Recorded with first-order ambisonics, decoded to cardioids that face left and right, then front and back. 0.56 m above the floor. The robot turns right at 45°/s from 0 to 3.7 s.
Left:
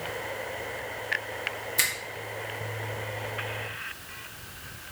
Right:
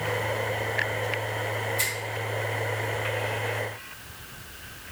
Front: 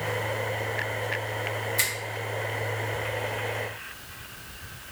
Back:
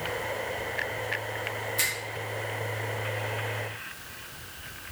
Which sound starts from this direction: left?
A finger snap, at 1.8 s.